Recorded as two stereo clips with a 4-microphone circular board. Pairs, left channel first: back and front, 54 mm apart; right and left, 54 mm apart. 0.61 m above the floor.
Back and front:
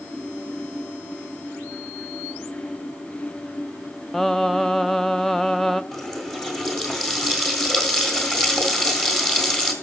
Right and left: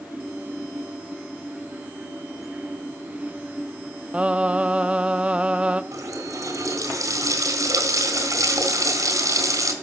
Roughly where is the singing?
Left.